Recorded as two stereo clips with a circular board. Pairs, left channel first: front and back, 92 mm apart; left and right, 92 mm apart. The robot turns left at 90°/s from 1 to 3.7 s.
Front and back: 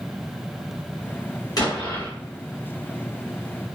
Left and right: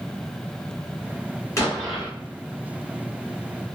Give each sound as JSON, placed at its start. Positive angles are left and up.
{"t": 1.6, "sound": "an explosion", "azimuth_deg": 40, "distance_m": 1.8}